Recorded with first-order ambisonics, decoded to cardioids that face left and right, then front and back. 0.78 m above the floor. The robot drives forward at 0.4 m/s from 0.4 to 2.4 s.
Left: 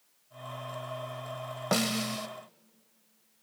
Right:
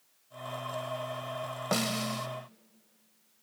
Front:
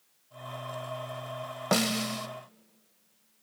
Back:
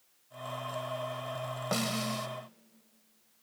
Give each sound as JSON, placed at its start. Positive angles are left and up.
{"t": 1.7, "sound": "a snare drum", "azimuth_deg": 20, "distance_m": 0.6}